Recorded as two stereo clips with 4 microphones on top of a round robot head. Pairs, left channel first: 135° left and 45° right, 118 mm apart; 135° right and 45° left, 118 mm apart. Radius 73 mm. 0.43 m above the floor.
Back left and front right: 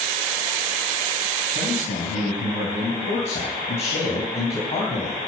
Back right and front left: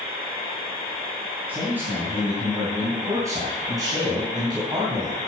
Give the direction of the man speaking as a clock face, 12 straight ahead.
8 o'clock.